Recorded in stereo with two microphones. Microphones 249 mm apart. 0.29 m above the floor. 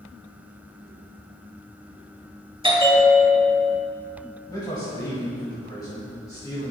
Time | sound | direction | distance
2.6 | a bell | 20° right (ahead or behind) | 1.0 m
4.5 | a man speaking | 15° left (ahead or behind) | 1.8 m